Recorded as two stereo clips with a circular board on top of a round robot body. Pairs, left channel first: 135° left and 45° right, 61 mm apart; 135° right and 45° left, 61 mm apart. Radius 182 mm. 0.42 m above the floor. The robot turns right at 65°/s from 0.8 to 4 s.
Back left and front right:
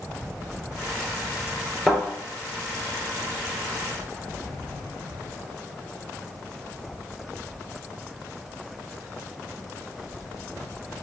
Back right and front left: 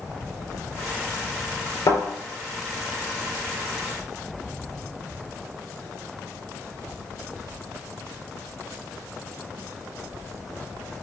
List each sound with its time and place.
1.9 s a thud: 145° right, 4 m; by 2.0 s 135° right, 4 m